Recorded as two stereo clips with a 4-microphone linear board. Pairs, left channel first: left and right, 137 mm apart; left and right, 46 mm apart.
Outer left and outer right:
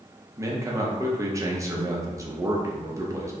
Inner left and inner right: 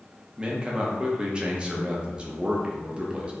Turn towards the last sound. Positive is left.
turn(degrees=-25)  # may be behind; listen again after turning